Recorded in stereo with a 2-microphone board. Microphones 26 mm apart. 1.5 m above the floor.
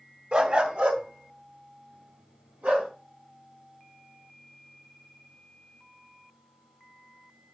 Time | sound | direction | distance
0.3 | a dog barking | 50° right (ahead or behind) | 1.9 m